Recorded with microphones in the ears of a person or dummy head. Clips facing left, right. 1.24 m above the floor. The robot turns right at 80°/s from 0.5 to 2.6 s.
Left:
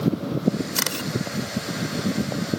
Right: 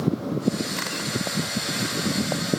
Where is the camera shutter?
60° left (ahead or behind); by 1.1 s 30° left (ahead or behind).